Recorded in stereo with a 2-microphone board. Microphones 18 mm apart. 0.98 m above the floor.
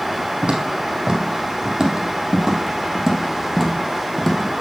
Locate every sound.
0.4 s footsteps: 50° right (ahead or behind), 2.5 m; by 4.6 s 15° left (ahead or behind), 2.5 m